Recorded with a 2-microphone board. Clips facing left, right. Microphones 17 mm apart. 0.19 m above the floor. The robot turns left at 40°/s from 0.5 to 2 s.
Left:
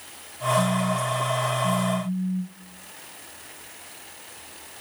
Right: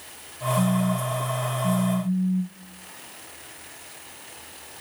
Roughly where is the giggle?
I don't hear a giggle.